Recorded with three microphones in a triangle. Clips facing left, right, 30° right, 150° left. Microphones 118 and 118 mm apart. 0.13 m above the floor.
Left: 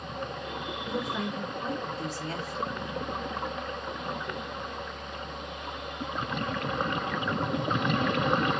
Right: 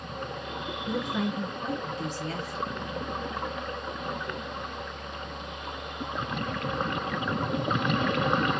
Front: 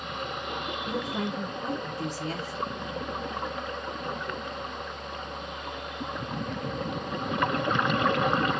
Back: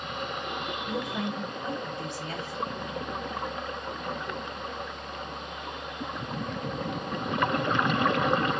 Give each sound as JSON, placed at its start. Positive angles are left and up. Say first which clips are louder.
{"t": 0.9, "sound": "a woman speaking", "louder": "right 3 dB, front 1 dB", "azimuth_deg": -20, "distance_m": 2.0}